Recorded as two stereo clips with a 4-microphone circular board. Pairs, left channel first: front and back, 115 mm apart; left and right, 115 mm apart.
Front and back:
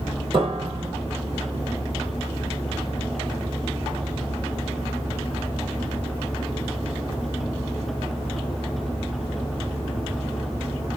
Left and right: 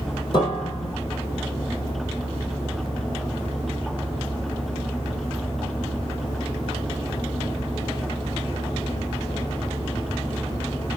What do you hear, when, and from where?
0.3 s a piano: 140° left, 1.3 m